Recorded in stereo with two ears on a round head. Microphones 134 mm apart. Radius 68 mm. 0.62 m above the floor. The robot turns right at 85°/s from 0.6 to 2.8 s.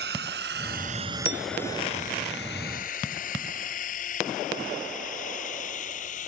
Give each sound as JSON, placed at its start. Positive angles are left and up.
{"t": 0.0, "sound": "a drone", "side_deg": -75}
{"t": 1.2, "sound": "a clink", "side_deg": -35}